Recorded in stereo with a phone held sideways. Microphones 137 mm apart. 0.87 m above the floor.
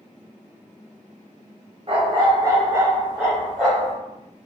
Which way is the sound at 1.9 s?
40° right (ahead or behind).